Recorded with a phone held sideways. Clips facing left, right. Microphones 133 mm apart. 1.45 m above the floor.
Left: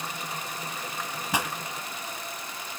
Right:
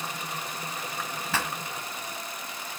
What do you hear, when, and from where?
1.3 s a pop: 15° left (ahead or behind), 1.6 m